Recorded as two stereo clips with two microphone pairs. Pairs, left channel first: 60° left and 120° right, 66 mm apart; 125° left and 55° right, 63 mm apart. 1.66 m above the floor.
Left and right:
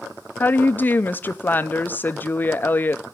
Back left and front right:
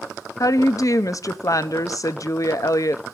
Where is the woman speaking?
115° left, 0.5 m.